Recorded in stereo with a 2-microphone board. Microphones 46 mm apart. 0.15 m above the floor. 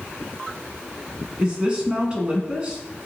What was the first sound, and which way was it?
A woman speaking, 20° right (ahead or behind).